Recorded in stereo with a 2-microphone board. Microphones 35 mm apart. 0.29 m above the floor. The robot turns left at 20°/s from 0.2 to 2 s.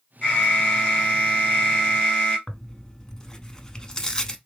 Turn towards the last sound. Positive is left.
turn(degrees=20)  # may be behind; listen again after turning